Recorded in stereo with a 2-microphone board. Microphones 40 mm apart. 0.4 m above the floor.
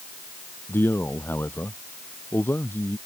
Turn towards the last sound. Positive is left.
turn(degrees=65)  # may be behind; listen again after turning